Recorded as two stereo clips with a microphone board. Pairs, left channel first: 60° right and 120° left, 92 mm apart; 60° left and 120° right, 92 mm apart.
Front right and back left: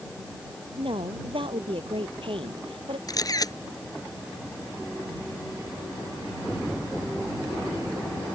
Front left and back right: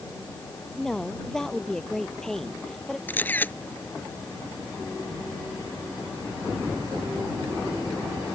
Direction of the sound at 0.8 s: 145° left.